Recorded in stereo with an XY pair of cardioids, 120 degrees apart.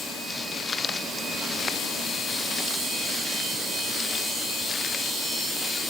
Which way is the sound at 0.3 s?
30° left.